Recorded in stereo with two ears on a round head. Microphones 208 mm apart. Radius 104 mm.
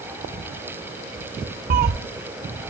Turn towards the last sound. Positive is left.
turn(degrees=-40)  # may be behind; listen again after turning